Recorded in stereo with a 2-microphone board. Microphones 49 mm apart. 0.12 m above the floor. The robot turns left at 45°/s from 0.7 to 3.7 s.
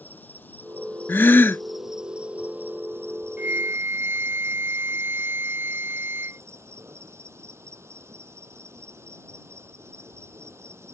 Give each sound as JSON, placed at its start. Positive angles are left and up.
{"t": 0.0, "sound": "an insect", "azimuth_deg": 40}
{"t": 1.1, "sound": "a gasp", "side_deg": 50}
{"t": 3.4, "sound": "a flute", "side_deg": -45}